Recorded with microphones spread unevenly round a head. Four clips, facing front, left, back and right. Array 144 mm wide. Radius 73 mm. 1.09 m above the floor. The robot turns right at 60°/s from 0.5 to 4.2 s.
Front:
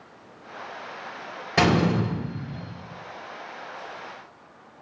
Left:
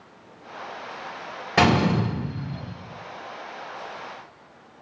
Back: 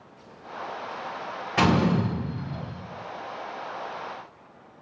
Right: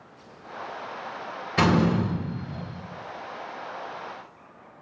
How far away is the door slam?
About 4.5 m.